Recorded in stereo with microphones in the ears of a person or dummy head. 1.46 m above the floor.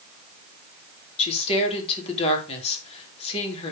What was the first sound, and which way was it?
A woman speaking, 30° left (ahead or behind).